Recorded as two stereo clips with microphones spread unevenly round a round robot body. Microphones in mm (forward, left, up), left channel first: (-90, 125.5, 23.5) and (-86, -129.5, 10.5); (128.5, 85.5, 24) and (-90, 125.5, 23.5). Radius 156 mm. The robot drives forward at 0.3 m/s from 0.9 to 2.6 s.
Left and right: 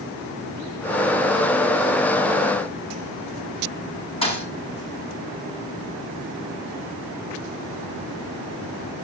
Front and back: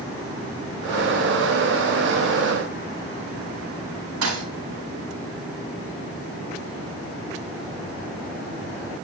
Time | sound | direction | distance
4.2 | a thud | 160° left | 7 m